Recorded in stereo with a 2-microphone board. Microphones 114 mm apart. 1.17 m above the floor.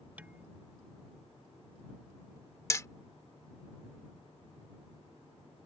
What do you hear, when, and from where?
0.2 s dishes clattering: 15° right (ahead or behind)
2.7 s hammering: 30° left (ahead or behind)